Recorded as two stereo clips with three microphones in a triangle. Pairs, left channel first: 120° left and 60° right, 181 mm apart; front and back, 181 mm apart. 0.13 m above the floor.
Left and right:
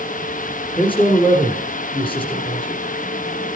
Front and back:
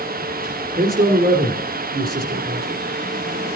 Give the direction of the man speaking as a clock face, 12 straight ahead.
6 o'clock.